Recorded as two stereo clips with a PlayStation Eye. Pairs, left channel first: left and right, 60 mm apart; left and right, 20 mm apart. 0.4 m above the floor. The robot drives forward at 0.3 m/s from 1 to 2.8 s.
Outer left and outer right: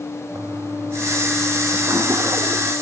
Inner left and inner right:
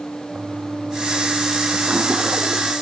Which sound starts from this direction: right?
A toilet flushing, at 0.3 s.